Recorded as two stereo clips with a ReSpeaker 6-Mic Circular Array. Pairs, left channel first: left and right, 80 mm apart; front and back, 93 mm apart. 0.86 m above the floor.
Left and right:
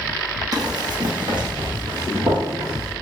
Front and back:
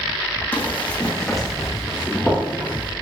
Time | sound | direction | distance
0.5 | running footsteps | 65° right | 1.9 m